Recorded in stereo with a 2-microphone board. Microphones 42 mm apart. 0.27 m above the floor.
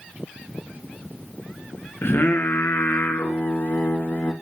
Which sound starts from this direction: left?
Singing, at 2.0 s.